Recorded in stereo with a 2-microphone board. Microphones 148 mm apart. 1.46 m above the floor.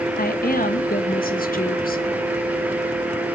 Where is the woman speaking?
80° left, 1.7 m.